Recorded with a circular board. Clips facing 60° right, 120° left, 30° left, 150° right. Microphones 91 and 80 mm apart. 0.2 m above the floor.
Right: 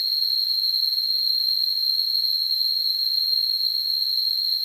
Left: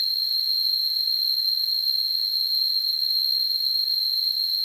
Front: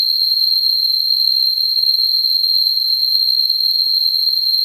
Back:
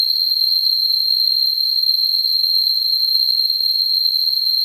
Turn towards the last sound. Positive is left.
turn(degrees=20)